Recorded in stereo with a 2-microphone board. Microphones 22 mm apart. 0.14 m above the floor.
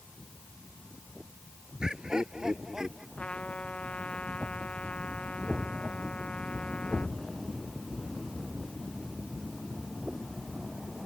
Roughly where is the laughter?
Right.